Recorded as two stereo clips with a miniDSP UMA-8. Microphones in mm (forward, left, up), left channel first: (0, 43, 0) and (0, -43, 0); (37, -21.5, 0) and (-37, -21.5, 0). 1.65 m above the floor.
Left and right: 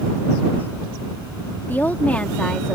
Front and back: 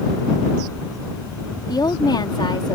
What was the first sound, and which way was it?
A woman speaking, 25° left.